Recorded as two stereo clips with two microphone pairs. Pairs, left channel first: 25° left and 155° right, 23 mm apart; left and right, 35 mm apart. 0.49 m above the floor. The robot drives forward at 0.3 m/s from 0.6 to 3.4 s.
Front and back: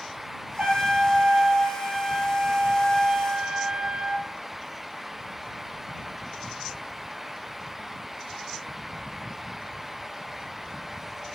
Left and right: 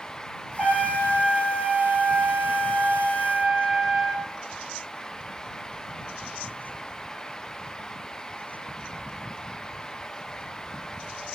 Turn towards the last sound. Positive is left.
turn(degrees=-165)